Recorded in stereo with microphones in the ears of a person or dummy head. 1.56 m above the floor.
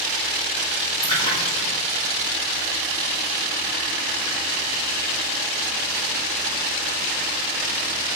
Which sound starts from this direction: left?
A splash, at 1.0 s.